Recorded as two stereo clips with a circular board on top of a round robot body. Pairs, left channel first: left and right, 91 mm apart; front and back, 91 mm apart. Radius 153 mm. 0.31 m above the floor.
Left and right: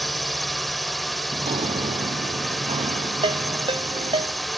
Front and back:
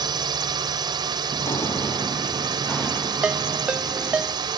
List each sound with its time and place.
0.0 s a drone: straight behind
1.3 s footsteps: 55° right; by 4.2 s 90° right
3.2 s a ringtone: 105° right